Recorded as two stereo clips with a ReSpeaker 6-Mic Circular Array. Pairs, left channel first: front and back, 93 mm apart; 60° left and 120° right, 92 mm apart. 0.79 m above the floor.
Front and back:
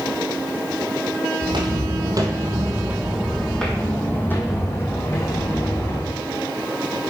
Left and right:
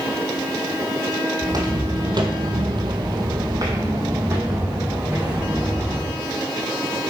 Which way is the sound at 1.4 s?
165° right.